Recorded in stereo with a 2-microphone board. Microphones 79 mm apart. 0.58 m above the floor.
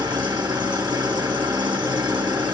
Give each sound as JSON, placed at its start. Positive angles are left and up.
{"t": 0.0, "sound": "an engine running", "side_deg": -65, "distance_m": 2.5}